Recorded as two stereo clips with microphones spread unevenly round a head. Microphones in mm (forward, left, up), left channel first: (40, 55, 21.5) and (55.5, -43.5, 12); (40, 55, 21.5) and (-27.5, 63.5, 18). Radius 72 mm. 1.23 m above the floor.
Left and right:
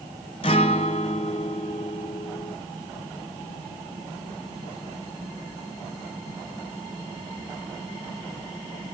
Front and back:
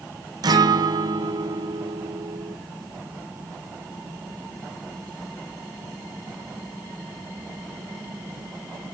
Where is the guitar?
150° left, 0.7 m.